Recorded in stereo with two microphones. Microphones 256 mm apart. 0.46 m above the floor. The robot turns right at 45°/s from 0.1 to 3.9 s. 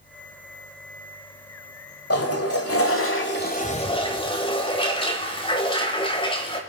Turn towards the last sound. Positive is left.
turn(degrees=160)